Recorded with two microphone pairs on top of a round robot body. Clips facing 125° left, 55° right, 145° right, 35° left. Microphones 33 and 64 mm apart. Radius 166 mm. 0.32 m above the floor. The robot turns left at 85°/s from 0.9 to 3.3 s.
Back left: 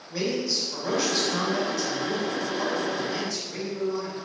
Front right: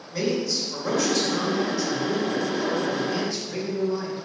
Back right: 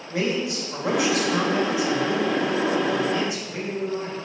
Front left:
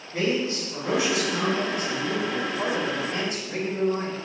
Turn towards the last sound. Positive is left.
turn(degrees=0)